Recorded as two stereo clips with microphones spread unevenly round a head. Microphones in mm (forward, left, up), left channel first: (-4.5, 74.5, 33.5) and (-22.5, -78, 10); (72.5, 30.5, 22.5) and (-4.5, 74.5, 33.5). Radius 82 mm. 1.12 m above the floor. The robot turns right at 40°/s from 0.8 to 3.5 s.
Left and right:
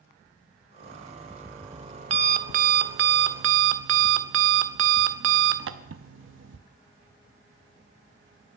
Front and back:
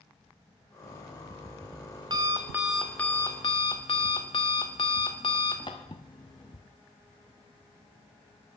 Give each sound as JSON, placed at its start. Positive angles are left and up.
{"t": 0.8, "sound": "an alarm clock", "azimuth_deg": 155, "distance_m": 0.7}